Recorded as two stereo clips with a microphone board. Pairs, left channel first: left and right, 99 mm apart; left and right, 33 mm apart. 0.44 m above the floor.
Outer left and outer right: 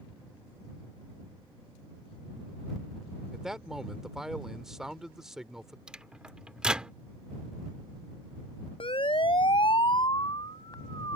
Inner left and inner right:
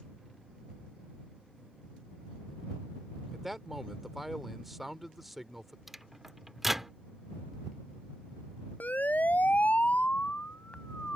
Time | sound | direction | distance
3.3 | a man speaking | 5° right (ahead or behind) | ?
5.9 | a microwave | 10° right (ahead or behind) | ?
8.8 | a siren | 65° left (ahead or behind) | ?